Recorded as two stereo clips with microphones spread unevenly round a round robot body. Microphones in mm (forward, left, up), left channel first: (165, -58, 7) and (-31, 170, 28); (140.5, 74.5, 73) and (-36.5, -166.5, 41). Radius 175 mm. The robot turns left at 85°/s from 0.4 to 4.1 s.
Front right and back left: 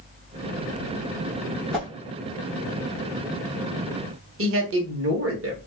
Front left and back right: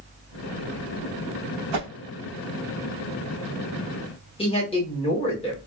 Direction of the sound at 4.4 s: 125° left.